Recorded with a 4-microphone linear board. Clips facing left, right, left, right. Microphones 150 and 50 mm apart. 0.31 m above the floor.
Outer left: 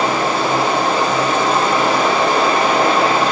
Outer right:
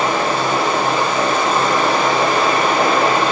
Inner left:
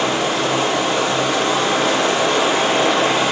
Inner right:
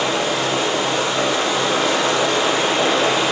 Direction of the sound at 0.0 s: 40° left (ahead or behind).